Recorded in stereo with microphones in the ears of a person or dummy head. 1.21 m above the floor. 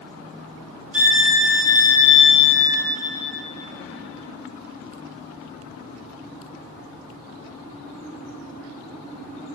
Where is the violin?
10° right (ahead or behind), 0.6 m.